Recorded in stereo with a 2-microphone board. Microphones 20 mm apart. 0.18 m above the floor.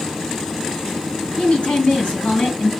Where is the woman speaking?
65° left (ahead or behind), 3 m.